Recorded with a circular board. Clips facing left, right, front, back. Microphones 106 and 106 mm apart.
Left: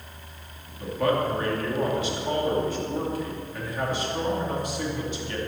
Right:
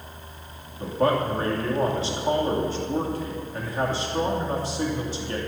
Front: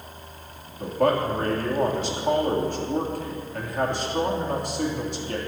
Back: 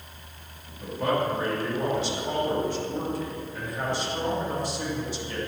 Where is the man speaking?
35° right, 3 m.